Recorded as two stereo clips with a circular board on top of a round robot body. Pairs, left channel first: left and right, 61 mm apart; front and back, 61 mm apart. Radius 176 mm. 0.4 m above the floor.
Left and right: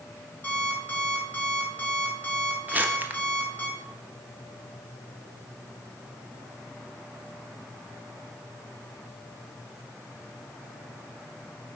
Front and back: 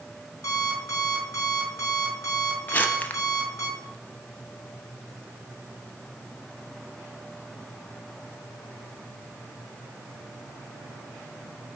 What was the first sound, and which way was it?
An alarm clock, 30° left.